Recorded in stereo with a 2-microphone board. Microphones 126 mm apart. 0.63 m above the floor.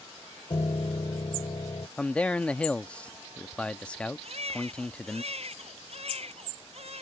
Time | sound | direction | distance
0.5 | a piano | 45° left (ahead or behind) | ?
2.0 | a man speaking | 10° left (ahead or behind) | ?
4.2 | a baby crying | 60° right (ahead or behind) | ?